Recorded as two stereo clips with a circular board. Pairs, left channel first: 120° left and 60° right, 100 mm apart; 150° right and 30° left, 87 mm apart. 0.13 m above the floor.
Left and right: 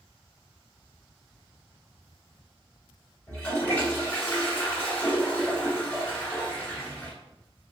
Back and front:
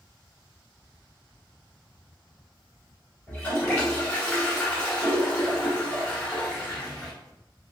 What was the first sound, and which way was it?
A toilet flushing, 165° left.